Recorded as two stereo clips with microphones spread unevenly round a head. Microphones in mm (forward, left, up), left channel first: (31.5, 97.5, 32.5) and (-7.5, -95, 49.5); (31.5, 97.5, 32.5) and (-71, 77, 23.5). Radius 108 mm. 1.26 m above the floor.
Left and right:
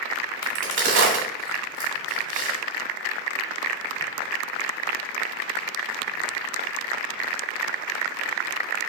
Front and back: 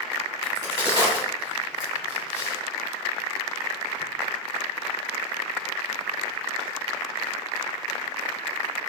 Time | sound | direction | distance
0.4 | a crack | 120° right | 1.1 m